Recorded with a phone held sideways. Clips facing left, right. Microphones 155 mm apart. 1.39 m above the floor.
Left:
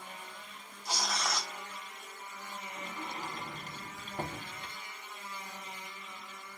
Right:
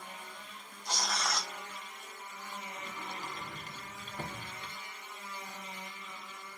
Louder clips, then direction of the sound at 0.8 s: Even; 5° left (ahead or behind).